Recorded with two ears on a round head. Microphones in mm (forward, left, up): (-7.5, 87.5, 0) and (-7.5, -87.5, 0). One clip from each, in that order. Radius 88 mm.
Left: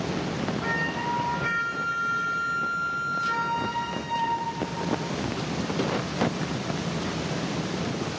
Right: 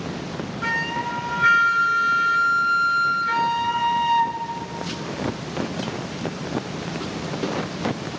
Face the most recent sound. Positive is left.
turn(degrees=-65)  # may be behind; listen again after turning